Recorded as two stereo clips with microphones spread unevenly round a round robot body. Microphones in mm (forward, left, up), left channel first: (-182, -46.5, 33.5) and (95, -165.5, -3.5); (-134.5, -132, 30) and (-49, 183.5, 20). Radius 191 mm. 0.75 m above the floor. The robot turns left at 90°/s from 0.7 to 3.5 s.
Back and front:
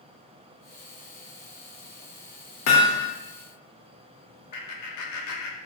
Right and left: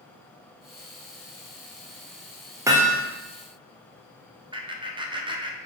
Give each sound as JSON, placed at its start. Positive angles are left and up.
{"t": 2.7, "sound": "hammering", "azimuth_deg": 150, "distance_m": 0.6}
{"t": 4.5, "sound": "laughter", "azimuth_deg": 145, "distance_m": 0.6}